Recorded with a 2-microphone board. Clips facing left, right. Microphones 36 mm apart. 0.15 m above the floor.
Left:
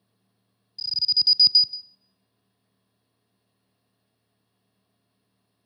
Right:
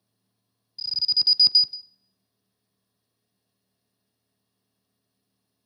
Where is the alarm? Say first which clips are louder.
Left 1 dB; 10° right (ahead or behind), 0.9 m.